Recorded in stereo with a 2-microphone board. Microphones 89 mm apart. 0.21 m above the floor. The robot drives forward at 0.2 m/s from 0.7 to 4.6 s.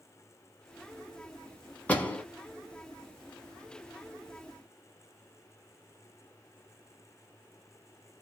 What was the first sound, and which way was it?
A door slam, 15° left (ahead or behind).